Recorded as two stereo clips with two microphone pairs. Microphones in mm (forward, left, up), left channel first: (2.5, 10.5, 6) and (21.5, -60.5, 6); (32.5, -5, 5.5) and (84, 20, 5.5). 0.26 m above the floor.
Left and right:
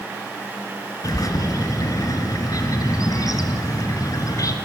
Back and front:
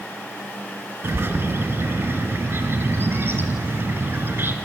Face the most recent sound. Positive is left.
turn(degrees=70)